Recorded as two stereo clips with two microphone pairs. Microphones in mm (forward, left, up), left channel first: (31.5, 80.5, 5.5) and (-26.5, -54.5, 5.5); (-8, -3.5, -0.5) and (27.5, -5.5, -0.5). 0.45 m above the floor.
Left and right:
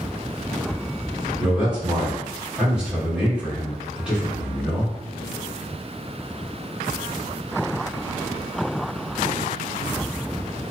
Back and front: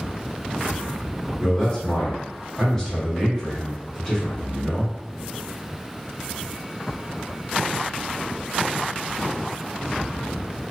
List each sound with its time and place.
1.4 s a man speaking: 175° left, 1.3 m